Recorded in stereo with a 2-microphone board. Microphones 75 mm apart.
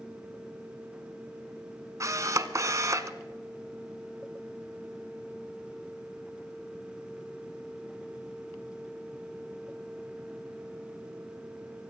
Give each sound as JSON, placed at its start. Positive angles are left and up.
{"t": 2.0, "sound": "a camera shutter", "side_deg": -50, "distance_m": 0.8}